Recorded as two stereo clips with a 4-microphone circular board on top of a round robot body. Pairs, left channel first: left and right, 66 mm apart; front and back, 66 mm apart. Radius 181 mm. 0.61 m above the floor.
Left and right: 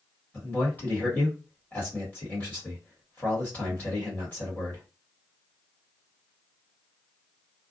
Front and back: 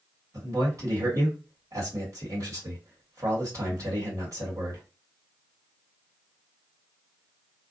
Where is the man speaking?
155° left, 1.6 m.